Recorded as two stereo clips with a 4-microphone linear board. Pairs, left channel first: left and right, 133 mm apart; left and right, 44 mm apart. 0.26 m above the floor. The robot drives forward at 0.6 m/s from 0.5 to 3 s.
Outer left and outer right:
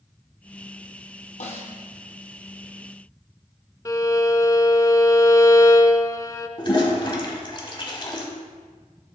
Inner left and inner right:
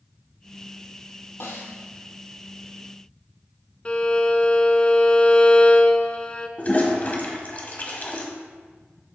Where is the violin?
25° left (ahead or behind), 0.5 m.